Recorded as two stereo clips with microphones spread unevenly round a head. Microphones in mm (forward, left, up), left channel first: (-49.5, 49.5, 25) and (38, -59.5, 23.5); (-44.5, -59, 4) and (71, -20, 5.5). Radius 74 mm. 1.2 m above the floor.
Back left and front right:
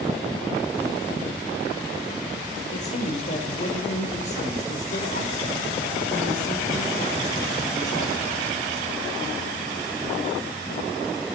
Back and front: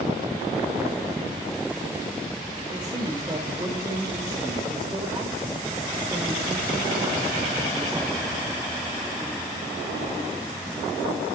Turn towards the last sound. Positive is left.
turn(degrees=85)